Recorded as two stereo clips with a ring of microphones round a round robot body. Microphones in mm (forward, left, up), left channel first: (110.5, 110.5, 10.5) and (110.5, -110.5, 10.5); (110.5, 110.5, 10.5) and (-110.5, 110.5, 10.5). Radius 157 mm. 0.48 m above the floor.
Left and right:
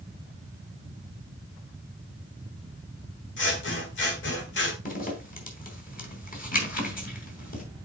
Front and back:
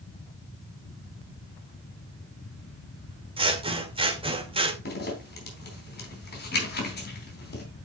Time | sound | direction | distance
3.4 | scissors | 120° left | 1.7 m
4.8 | a zipper | 40° left | 3.5 m